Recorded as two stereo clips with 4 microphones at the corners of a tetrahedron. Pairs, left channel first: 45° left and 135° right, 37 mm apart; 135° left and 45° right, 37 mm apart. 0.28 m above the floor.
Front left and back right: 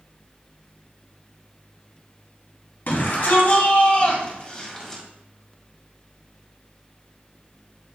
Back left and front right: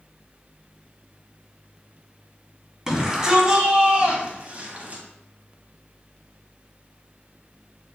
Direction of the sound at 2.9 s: 30° left.